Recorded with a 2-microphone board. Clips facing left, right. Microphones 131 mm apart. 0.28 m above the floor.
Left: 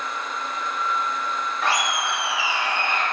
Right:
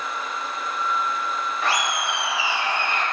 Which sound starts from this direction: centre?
Laughter, at 1.6 s.